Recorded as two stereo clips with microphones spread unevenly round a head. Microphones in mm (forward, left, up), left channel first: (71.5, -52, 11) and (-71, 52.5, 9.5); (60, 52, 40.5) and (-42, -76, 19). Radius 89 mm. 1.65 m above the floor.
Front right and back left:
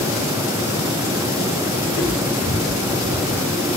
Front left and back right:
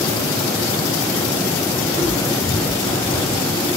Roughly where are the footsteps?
Ahead right.